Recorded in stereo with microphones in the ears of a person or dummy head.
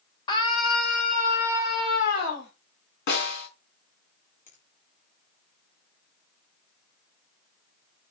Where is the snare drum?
55° left (ahead or behind), 4.5 m.